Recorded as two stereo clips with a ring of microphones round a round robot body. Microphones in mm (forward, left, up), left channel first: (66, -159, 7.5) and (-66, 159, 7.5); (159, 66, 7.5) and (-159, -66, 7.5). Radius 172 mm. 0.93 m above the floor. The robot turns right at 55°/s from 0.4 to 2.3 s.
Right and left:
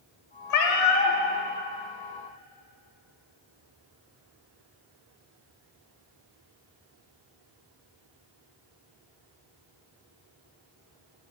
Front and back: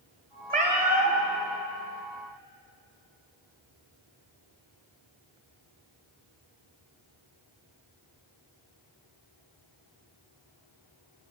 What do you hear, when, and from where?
0.5 s a cat meowing: 95° right, 1.0 m; by 1.2 s 55° right, 1.0 m